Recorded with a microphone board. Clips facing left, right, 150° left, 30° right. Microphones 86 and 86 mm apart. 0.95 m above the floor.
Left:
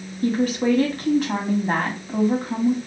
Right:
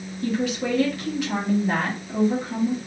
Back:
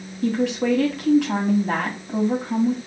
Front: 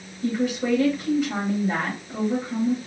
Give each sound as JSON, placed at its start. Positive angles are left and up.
{"t": 0.2, "sound": "a woman speaking", "azimuth_deg": 135, "distance_m": 1.7}